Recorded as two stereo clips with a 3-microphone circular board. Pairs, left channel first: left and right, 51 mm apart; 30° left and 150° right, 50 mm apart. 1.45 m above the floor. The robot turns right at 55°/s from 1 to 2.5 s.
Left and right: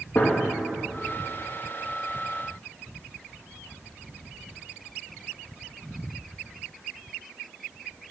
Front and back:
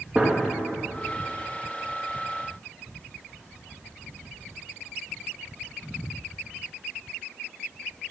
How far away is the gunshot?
About 2.5 m.